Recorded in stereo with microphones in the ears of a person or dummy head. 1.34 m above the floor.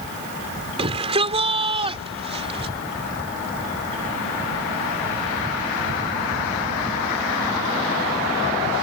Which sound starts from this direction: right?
A shout, at 0.8 s.